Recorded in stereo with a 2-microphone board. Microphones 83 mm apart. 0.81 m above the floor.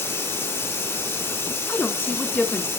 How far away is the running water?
About 1.8 m.